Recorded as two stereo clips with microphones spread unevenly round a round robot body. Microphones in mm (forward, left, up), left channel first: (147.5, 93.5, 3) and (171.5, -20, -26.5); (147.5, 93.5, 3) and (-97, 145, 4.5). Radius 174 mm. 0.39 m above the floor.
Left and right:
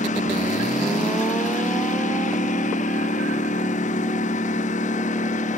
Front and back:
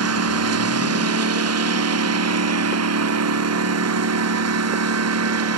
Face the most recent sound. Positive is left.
turn(degrees=150)